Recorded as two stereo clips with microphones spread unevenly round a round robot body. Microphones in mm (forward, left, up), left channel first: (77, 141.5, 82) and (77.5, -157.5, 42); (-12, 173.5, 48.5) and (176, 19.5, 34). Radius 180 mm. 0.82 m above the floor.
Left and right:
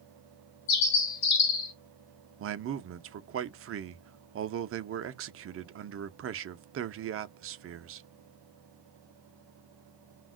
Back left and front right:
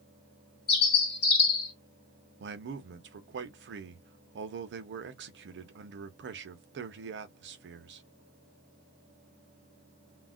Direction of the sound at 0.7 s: 140° left.